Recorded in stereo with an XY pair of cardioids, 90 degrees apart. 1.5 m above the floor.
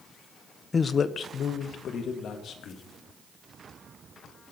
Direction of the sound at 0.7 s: 35° left.